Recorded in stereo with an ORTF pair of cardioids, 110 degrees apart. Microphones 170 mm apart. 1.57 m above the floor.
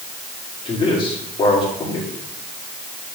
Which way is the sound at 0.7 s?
30° left.